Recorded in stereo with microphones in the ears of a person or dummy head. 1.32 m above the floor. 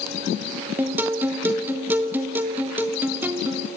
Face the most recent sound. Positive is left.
turn(degrees=-10)  # may be behind; listen again after turning